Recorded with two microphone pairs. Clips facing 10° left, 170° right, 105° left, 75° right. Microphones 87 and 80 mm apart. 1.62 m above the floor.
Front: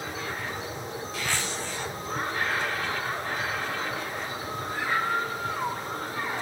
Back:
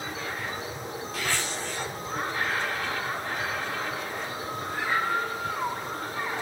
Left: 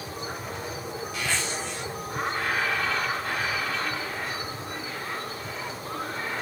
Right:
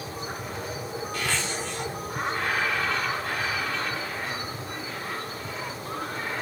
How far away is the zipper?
About 4.5 m.